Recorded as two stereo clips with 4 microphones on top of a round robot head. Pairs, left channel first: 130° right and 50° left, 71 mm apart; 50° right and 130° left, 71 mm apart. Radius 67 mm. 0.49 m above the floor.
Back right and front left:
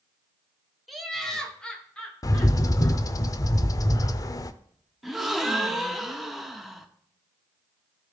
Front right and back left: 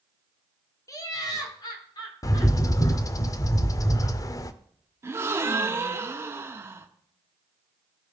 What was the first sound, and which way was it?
Laughter, 40° right.